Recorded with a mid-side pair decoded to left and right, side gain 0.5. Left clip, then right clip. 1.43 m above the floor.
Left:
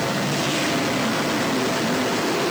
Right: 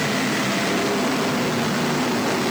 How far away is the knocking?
I don't hear knocking.